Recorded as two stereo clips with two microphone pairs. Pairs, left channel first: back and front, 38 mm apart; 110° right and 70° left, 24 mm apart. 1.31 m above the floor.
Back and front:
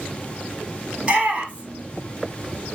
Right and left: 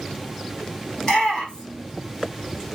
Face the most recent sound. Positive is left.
turn(degrees=-60)